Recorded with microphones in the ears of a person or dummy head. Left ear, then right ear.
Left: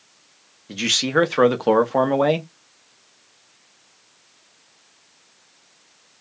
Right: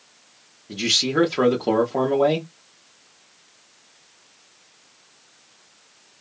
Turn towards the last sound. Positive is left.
turn(degrees=50)  # may be behind; listen again after turning